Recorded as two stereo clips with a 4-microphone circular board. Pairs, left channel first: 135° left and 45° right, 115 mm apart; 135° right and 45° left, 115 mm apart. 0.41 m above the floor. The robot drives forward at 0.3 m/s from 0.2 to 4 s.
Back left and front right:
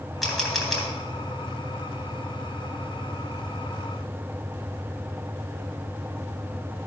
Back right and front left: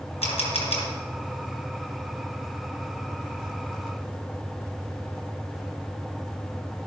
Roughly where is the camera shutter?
Behind right.